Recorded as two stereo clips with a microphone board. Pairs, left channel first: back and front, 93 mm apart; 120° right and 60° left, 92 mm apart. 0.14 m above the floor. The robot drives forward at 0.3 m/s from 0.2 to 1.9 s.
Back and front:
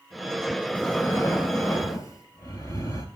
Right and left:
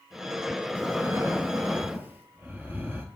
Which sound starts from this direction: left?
Breathing, at 0.8 s.